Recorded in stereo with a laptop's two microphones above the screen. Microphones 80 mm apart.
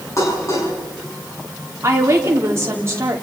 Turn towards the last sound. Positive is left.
turn(degrees=-35)  # may be behind; listen again after turning